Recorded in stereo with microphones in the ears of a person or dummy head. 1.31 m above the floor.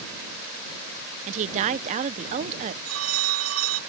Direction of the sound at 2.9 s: 85° right.